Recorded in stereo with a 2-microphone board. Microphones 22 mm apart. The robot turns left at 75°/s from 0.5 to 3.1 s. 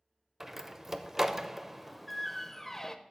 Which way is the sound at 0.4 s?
20° right (ahead or behind).